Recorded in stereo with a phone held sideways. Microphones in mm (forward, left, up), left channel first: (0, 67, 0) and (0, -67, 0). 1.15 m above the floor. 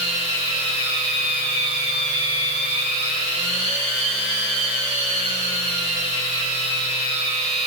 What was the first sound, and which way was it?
A machine running, 50° right (ahead or behind).